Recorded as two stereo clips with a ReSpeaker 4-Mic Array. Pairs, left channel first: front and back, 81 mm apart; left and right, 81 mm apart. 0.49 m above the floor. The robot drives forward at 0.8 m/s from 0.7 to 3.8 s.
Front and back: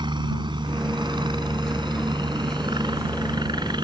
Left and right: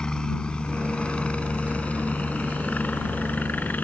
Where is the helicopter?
170° left; by 3.9 s 160° left.